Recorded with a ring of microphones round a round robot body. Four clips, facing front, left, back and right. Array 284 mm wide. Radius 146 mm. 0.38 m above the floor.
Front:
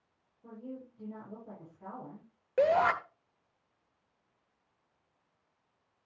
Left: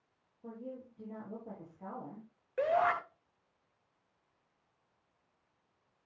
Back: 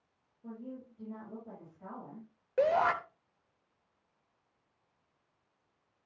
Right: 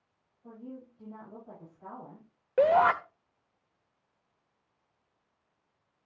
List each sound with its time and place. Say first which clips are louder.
0.4 s a woman speaking: even, even; 85° left, 8.5 m
2.6 s a shout: right 7 dB, front 2 dB; 80° right, 1.1 m